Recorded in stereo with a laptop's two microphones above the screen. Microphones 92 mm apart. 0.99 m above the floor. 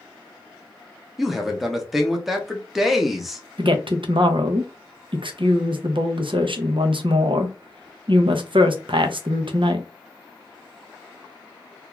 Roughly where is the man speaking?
Centre.